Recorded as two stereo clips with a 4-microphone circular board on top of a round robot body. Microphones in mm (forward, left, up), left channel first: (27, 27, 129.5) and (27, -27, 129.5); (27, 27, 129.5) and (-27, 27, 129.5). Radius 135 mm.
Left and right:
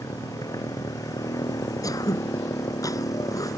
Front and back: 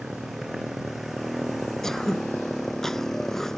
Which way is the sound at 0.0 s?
95° left.